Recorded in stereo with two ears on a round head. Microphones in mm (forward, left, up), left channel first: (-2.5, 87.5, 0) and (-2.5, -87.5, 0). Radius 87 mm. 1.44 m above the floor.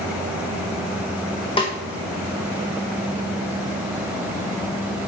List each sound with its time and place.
1.6 s a snare drum: 25° left (ahead or behind), 1.6 m